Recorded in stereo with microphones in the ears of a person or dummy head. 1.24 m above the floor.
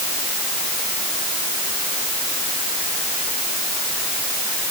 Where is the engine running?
No engine running in this recording.